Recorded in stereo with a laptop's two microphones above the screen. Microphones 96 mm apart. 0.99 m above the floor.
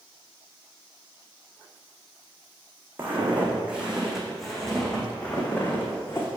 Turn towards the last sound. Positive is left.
turn(degrees=25)  # may be behind; listen again after turning